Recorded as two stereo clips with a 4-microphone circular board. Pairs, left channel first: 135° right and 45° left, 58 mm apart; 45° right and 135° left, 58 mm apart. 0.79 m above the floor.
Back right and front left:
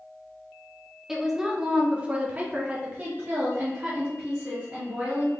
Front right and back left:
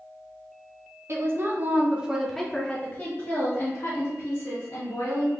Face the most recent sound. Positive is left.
turn(degrees=-25)